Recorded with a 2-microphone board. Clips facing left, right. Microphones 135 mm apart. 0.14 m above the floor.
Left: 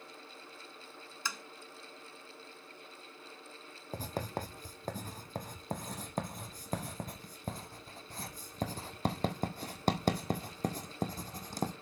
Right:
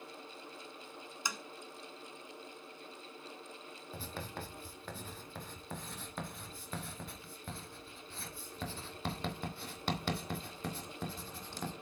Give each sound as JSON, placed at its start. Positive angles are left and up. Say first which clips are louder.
{"t": 1.2, "sound": "tapping", "louder": "even", "side_deg": -20, "distance_m": 0.7}
{"t": 3.9, "sound": "writing", "louder": "left 7 dB", "side_deg": 40, "distance_m": 1.2}